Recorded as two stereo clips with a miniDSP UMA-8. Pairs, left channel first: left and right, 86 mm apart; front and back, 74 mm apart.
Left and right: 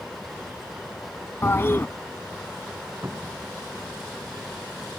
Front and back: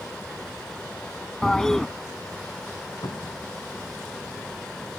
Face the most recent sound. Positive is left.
turn(degrees=-30)